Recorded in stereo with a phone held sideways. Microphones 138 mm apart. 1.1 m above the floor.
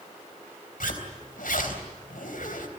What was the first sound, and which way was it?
A zipper, 85° left.